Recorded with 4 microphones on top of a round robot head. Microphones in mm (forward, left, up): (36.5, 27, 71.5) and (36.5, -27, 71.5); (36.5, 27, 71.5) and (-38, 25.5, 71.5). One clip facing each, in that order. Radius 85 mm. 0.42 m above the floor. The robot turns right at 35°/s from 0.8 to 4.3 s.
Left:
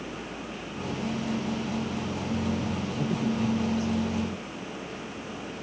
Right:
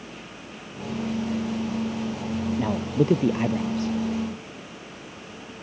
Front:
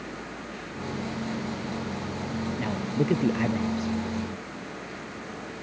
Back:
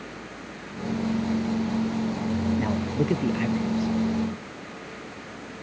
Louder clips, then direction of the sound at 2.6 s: Right 7 dB, back 2 dB; 105° right.